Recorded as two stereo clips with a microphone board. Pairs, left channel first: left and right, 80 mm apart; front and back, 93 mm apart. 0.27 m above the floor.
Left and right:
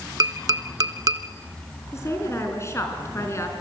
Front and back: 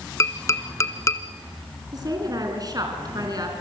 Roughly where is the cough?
No cough in this recording.